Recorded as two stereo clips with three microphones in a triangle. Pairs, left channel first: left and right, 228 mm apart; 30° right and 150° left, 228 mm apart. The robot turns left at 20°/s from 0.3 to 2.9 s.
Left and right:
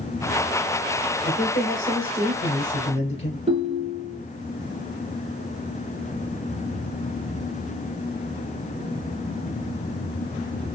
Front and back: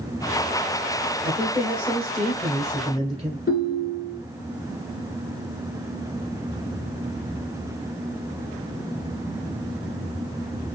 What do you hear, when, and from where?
1.2 s a man speaking: 85° left, 1.5 m; by 3.4 s 55° left, 1.5 m
3.5 s a ringtone: 35° right, 0.9 m